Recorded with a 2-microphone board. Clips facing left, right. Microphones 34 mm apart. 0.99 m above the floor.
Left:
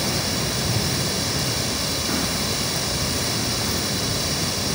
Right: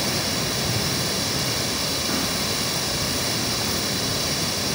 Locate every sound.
0.0 s running water: 5° right (ahead or behind), 2.5 m